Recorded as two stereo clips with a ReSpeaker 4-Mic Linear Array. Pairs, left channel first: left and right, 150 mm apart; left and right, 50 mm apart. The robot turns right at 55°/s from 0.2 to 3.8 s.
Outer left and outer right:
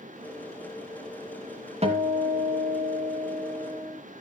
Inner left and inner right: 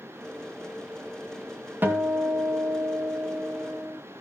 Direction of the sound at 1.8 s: 135° right.